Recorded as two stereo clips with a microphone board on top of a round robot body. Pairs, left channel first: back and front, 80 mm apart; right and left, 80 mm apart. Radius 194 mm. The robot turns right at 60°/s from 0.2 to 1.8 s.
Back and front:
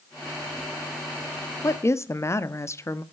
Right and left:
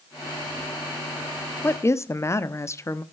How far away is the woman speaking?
About 1.2 m.